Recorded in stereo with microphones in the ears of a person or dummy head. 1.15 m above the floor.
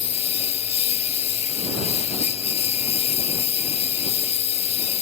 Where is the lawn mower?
35° left (ahead or behind).